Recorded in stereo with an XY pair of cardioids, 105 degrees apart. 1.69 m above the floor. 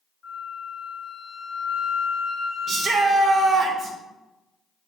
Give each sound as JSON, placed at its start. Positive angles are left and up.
{"t": 0.2, "sound": "a flute", "azimuth_deg": 60, "distance_m": 1.6}
{"t": 2.7, "sound": "a shout", "azimuth_deg": -55, "distance_m": 0.7}